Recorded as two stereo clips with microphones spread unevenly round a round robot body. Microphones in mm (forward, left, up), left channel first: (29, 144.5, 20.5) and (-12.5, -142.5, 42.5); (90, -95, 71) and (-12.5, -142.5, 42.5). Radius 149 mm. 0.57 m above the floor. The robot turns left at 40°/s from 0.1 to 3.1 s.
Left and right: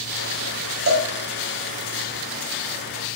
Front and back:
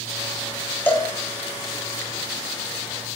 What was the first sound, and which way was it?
A cowbell, 55° right.